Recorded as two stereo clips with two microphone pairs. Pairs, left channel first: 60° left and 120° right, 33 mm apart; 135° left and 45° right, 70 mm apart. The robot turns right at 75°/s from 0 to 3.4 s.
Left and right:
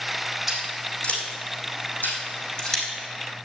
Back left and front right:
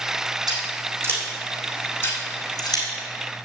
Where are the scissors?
35° right, 4 m; by 2.8 s 145° left, 4 m.